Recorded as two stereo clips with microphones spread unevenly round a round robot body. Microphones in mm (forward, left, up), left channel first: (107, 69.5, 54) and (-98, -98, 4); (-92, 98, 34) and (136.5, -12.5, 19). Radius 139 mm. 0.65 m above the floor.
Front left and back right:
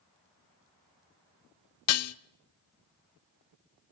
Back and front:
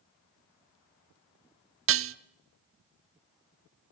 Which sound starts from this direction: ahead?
Dishes clattering, at 1.9 s.